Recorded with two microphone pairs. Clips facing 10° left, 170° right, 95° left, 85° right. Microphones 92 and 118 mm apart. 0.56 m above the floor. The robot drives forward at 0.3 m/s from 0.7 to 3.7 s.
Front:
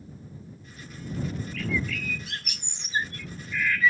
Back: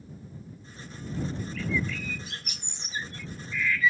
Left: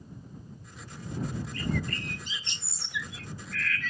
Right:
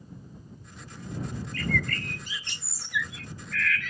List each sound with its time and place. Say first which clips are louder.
1.5 s a bird: even, right 3 dB; 25° left; by 3.9 s 40° left